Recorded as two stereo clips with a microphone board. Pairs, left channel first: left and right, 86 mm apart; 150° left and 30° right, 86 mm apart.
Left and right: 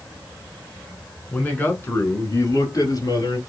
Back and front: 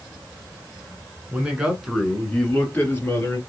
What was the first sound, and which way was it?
A man speaking, 30° left.